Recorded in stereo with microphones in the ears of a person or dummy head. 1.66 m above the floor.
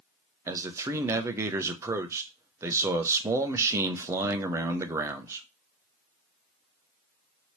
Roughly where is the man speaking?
Centre.